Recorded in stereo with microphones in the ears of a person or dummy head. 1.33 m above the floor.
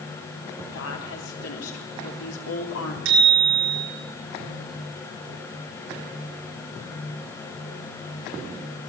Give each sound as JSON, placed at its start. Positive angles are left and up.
{"t": 0.7, "sound": "a woman speaking", "side_deg": 85, "distance_m": 4.5}
{"t": 3.0, "sound": "a bicycle bell", "side_deg": -65, "distance_m": 6.0}